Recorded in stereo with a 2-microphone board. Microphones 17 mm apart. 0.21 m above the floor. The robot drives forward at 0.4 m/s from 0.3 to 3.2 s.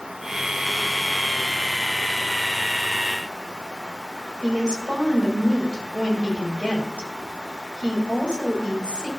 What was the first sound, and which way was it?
A woman speaking, 75° right (ahead or behind).